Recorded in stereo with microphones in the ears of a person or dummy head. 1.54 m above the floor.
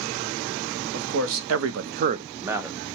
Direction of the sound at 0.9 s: 60° right (ahead or behind).